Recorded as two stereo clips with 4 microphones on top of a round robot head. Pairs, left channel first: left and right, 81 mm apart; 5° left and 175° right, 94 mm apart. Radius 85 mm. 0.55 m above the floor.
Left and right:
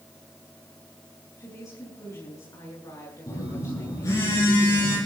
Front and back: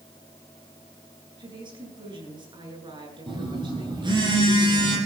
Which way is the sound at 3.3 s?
150° left.